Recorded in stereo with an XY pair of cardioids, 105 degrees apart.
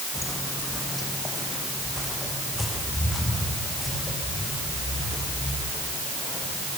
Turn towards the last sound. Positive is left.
turn(degrees=15)